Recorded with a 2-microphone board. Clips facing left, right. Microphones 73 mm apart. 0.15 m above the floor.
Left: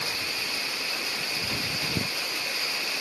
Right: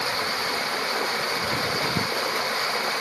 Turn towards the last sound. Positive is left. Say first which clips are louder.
# right 7 dB
turn(degrees=-45)  # may be behind; listen again after turning